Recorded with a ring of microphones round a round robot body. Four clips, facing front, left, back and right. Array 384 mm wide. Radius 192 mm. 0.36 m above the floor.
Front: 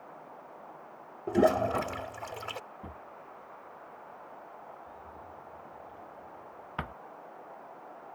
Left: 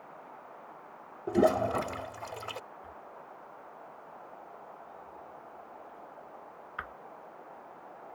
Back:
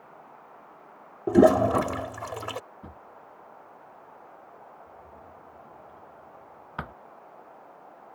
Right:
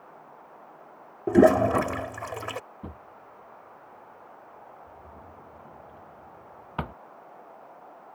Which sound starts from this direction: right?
A drawer, at 2.8 s.